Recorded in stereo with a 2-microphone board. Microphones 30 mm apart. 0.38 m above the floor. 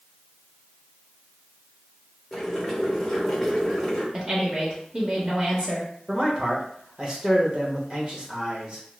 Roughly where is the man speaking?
Right.